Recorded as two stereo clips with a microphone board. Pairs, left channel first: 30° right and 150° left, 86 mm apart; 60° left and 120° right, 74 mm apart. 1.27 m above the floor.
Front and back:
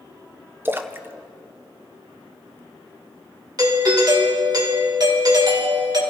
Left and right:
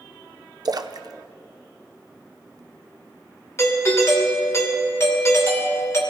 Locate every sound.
0.7 s a splash: 145° right, 0.6 m
3.6 s a doorbell: 110° left, 2.5 m